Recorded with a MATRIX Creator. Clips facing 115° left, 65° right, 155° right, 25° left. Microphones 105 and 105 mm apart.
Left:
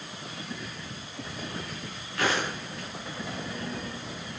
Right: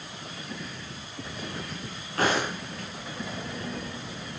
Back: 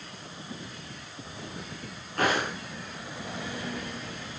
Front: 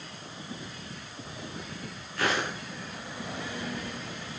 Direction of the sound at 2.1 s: 120° right.